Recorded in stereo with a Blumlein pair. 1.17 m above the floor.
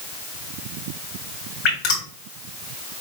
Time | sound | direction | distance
1.6 | dripping | 35° left | 2.5 m